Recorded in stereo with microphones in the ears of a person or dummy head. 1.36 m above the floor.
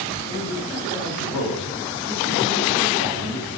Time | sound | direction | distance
0.2 | a man speaking | 60° left (ahead or behind) | 4 m